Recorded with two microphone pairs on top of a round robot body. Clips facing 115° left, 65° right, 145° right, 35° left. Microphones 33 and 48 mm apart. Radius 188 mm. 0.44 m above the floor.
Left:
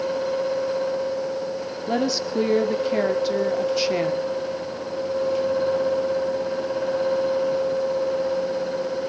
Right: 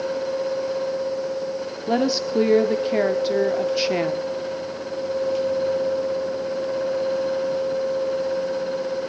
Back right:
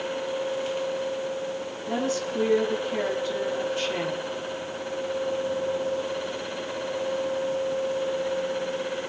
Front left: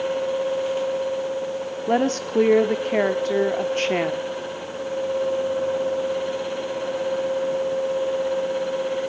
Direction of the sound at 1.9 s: 20° left.